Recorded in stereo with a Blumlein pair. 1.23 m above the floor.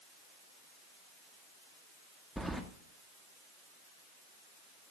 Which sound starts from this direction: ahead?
Keys jangling, at 2.4 s.